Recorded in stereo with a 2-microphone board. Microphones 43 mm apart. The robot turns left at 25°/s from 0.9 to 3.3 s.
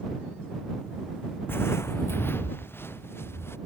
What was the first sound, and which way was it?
Footsteps, 55° left (ahead or behind).